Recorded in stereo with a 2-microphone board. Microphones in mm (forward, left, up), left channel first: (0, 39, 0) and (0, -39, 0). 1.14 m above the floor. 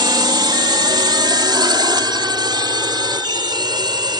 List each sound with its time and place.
0.0 s a drone: 65° right (ahead or behind)